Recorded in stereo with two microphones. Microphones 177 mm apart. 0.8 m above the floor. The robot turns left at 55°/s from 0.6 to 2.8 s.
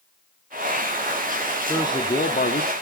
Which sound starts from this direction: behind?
A man speaking, at 1.7 s.